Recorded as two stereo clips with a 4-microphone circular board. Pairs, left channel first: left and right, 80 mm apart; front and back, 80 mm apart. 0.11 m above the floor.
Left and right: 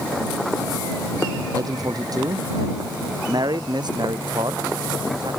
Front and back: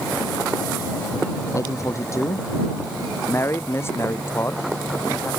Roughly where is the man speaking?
Ahead right.